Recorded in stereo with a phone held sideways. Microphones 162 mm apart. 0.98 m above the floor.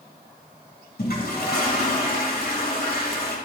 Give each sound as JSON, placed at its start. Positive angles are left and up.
{"t": 1.0, "sound": "a toilet flushing", "side_deg": 75, "distance_m": 3.5}